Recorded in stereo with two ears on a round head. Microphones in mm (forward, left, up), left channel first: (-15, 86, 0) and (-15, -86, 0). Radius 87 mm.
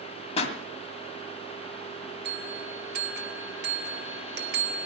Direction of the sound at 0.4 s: 35° left (ahead or behind).